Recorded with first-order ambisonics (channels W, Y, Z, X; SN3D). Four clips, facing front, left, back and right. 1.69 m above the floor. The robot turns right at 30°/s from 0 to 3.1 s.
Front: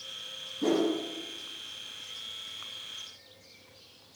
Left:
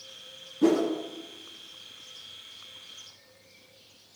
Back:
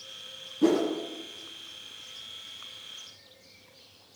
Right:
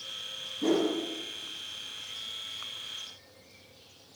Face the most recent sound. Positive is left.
turn(degrees=-160)